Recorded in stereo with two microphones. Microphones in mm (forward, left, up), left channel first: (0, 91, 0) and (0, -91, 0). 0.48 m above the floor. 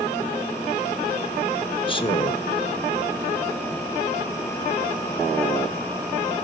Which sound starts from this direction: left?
A man speaking, at 1.9 s.